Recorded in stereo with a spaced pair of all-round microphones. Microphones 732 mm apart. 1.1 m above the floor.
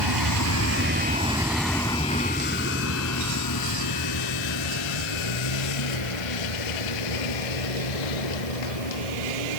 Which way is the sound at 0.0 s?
35° right (ahead or behind).